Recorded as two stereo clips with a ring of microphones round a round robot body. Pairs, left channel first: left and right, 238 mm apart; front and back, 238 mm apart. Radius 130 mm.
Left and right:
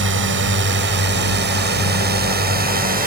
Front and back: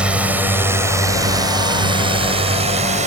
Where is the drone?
95° right; by 3.1 s 130° right.